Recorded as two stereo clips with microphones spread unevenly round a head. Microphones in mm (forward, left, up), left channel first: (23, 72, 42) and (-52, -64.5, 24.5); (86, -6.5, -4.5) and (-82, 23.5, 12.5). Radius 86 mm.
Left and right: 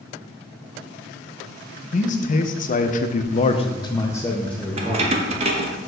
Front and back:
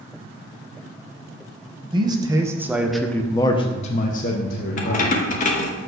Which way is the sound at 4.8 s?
60° right.